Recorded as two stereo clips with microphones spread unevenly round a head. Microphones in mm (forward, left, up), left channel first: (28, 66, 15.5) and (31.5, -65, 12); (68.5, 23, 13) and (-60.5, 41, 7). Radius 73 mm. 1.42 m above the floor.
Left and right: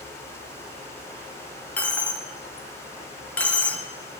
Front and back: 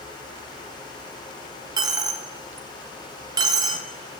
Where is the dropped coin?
160° left, 0.7 m.